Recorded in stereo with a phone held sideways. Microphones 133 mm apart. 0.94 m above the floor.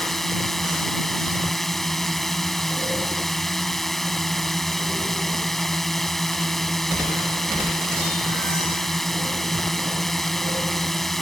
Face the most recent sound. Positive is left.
turn(degrees=0)  # may be behind; listen again after turning